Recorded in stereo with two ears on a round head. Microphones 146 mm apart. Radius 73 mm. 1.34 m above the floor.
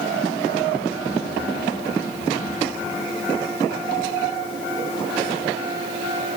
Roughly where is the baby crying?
I don't hear a baby crying.